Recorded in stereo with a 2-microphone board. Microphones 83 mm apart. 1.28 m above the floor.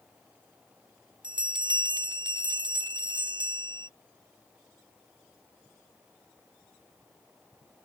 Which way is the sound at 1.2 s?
70° right (ahead or behind).